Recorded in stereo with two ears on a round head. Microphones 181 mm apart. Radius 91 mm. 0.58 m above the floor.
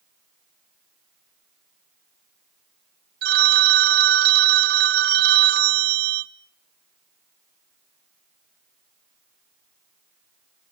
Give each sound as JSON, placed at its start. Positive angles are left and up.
{"t": 3.2, "sound": "a phone ringing", "side_deg": -50, "distance_m": 0.6}